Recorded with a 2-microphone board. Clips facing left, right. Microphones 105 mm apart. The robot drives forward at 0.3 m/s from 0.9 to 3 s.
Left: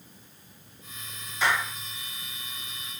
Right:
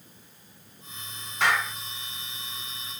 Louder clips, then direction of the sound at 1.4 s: Right 1 dB; 70° right (ahead or behind).